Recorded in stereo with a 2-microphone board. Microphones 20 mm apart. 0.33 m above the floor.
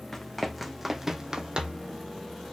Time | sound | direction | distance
0.1 | running footsteps | 5° left (ahead or behind) | 1.4 m